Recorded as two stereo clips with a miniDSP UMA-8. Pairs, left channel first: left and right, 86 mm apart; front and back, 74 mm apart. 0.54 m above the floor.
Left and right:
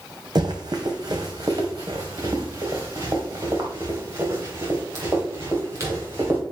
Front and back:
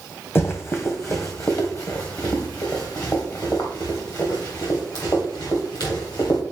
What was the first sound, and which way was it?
Running footsteps, 55° right.